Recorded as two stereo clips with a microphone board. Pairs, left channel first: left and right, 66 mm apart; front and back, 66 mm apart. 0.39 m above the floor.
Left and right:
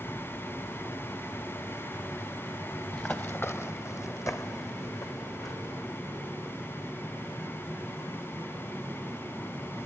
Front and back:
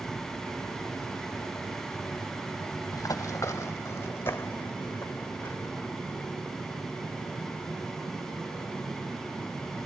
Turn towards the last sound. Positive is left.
turn(degrees=65)